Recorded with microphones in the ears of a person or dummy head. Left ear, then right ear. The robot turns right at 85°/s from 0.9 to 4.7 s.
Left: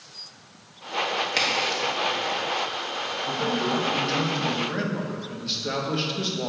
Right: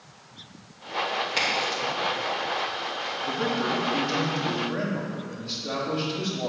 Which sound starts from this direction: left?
A crack, at 1.4 s.